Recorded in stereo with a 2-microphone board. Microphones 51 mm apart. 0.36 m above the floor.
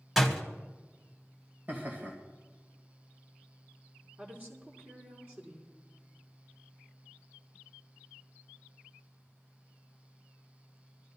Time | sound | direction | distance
0.2 | a door slam | 5° right (ahead or behind) | 1.8 m
1.7 | laughter | 40° right (ahead or behind) | 1.9 m
4.2 | a woman speaking | 35° right (ahead or behind) | 4.5 m